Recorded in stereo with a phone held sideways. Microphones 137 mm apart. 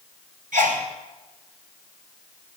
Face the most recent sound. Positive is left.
turn(degrees=-70)  # may be behind; listen again after turning